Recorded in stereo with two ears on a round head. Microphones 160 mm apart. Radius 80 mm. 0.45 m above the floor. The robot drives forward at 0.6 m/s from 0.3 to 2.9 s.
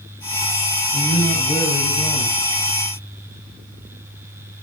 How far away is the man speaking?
About 2.5 m.